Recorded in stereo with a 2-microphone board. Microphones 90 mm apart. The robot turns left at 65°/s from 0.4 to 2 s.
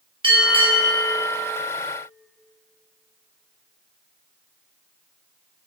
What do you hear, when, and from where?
0.2 s a bell: 80° right, 1.2 m; by 1.1 s 130° right, 1.2 m